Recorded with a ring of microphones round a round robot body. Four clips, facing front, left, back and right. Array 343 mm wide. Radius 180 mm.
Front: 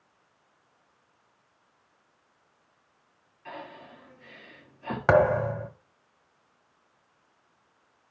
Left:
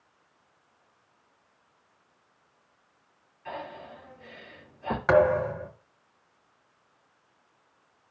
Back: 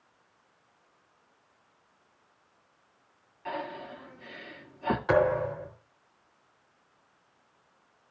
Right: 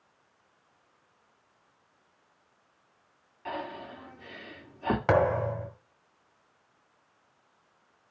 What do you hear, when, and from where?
3.5 s breathing: 115° right, 2.5 m
5.1 s a thud: 15° right, 1.7 m